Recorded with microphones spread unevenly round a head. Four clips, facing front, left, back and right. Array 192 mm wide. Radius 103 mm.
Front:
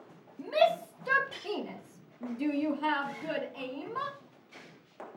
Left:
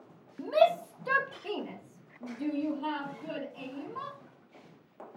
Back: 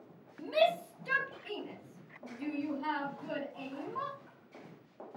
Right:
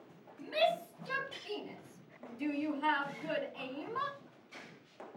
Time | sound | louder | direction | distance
0.4 | a shout | left 8 dB, front 3 dB | 75° left | 1.2 m